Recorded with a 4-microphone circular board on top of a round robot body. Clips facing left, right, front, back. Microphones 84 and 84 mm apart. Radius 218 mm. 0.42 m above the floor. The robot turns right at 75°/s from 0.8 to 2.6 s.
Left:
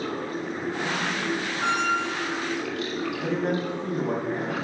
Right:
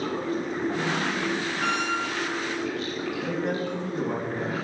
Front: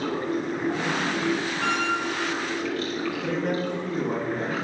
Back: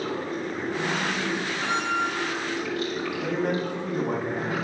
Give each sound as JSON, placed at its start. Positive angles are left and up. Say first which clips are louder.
{"t": 0.0, "sound": "running water", "louder": "right 2 dB, front 3 dB", "azimuth_deg": -35, "distance_m": 2.5}
{"t": 1.6, "sound": "a squeak", "louder": "left 4 dB, even", "azimuth_deg": 25, "distance_m": 3.5}
{"t": 3.2, "sound": "a man speaking", "louder": "left 2 dB, back 1 dB", "azimuth_deg": 140, "distance_m": 4.0}